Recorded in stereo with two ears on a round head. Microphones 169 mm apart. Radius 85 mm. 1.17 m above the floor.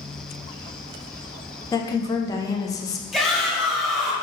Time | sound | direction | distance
1.7 | a woman speaking | 20° left (ahead or behind) | 0.5 m
3.1 | a shout | centre (ahead or behind) | 0.9 m